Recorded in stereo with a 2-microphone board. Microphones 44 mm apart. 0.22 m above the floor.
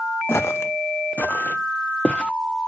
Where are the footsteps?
70° left (ahead or behind), 0.7 m; by 2.3 s 20° left (ahead or behind), 1.2 m.